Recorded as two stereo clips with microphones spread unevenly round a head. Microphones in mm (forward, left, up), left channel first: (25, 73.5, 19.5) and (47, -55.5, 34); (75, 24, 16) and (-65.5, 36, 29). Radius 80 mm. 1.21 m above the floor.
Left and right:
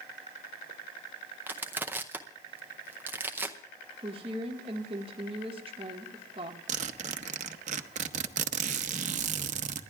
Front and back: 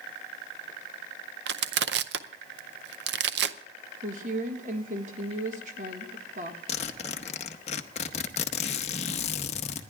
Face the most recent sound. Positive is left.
turn(degrees=-60)